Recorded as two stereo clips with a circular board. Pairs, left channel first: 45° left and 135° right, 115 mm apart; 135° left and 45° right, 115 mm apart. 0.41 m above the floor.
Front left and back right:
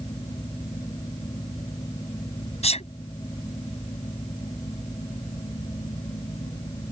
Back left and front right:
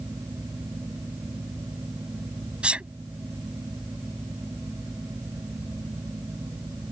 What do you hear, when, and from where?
2.6 s a sneeze: 35° left